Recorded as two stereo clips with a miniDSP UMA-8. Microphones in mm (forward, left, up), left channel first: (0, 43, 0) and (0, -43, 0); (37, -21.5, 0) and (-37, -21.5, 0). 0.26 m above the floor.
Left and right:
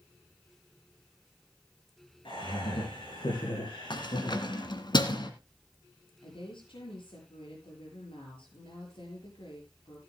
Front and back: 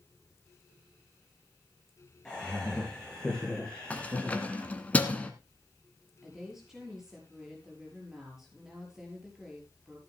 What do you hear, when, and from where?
2.2 s laughter: 80° left, 4 m; by 4.7 s 85° left, 6 m
3.9 s keys jangling: 70° left, 1.9 m
6.2 s a woman speaking: 95° left, 6 m